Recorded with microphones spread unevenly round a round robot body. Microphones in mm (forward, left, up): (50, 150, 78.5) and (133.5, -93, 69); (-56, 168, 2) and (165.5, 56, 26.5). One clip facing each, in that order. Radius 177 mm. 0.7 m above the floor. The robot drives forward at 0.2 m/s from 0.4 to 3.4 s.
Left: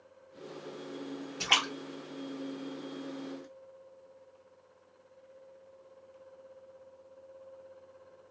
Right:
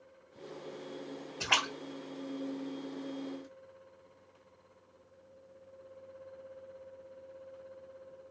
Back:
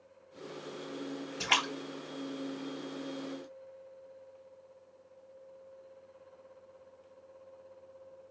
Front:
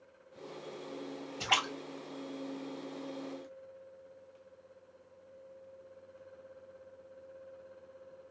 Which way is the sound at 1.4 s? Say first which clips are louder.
Left 2 dB, back 2 dB; 150° left.